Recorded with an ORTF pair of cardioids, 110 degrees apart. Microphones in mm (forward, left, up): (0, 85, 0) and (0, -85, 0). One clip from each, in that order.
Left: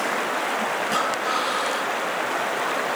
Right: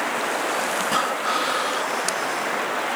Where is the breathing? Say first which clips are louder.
Right 1 dB; 10° right, 0.9 m.